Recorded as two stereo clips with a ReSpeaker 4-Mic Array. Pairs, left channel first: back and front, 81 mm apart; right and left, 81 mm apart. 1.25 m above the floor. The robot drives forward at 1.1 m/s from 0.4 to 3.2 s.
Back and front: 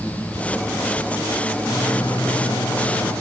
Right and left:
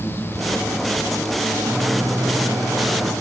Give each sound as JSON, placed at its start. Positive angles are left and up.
{"t": 1.7, "sound": "a microwave", "azimuth_deg": 140, "distance_m": 7.0}